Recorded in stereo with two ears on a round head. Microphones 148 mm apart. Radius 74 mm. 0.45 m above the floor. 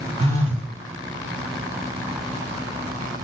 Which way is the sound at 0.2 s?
35° right (ahead or behind).